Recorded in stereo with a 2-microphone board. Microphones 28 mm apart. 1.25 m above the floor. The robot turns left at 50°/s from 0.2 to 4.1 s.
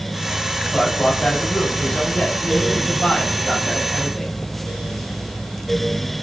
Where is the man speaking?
165° left, 8 m; by 4.3 s 5° right, 8 m.